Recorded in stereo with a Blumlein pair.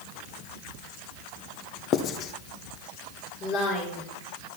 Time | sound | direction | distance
1.9 | writing | 30° left | 0.8 m
3.4 | a woman speaking | 35° left | 4 m